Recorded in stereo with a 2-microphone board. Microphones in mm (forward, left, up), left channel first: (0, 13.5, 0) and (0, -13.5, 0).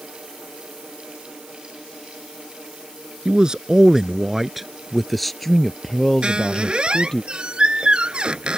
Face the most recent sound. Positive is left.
turn(degrees=-35)  # may be behind; listen again after turning